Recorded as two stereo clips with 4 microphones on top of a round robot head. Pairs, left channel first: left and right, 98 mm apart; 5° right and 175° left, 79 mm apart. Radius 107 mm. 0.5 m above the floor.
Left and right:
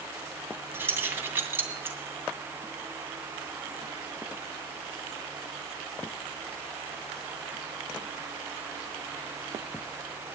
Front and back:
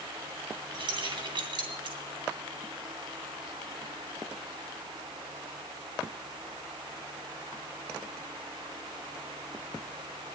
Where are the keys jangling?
160° right, 2.5 m.